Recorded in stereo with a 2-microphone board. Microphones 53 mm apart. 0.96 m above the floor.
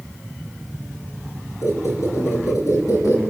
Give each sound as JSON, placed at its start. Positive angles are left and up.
{"t": 1.6, "sound": "a squeak", "side_deg": 75, "distance_m": 7.5}